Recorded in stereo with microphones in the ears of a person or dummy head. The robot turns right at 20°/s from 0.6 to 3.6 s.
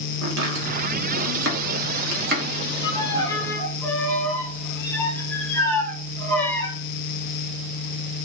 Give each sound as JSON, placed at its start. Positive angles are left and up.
{"t": 0.2, "sound": "chopping", "side_deg": -85, "distance_m": 1.1}
{"t": 2.8, "sound": "a violin", "side_deg": 25, "distance_m": 0.9}